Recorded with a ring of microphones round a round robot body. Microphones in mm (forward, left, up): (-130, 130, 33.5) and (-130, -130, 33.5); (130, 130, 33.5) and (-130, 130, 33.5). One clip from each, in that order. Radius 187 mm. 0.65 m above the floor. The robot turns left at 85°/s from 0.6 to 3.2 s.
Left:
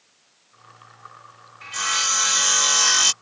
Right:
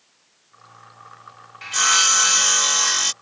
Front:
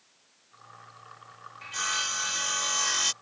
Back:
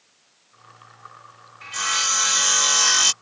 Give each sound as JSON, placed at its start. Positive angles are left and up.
{"t": 1.6, "sound": "sawing", "azimuth_deg": -90}